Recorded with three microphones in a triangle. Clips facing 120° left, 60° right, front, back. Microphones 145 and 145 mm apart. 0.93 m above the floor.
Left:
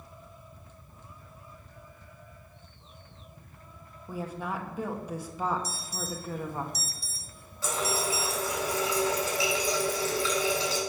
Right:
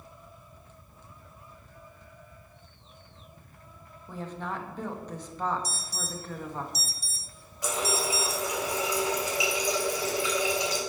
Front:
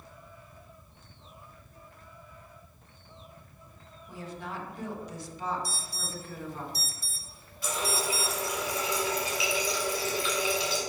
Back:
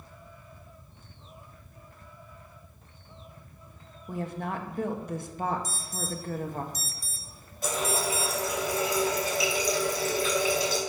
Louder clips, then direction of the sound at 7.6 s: Right 1 dB, back 3 dB; 135° right.